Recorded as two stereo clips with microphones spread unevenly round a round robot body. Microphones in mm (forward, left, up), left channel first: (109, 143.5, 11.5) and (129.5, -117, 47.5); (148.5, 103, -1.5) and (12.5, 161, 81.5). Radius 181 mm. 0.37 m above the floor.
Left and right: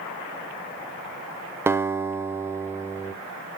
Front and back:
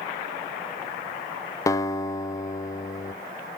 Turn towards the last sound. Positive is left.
turn(degrees=0)